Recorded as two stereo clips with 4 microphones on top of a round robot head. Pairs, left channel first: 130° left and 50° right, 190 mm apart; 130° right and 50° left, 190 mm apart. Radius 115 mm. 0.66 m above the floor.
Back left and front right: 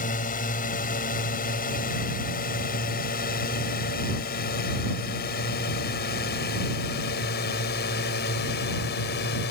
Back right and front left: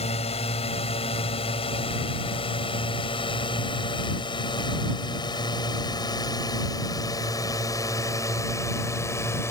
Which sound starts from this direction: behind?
A drone, at 0.0 s.